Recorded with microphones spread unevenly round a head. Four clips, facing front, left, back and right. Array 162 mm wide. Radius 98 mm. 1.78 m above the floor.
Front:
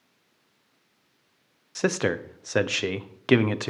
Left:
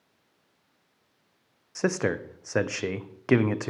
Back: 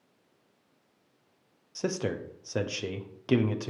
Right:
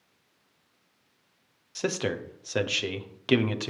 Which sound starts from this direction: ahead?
A man speaking, at 1.8 s.